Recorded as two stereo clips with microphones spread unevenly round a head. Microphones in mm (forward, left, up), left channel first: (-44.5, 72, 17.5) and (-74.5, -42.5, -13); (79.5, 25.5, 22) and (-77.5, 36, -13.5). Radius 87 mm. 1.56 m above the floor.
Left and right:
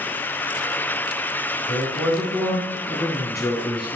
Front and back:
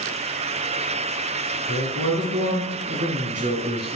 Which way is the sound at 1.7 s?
155° left.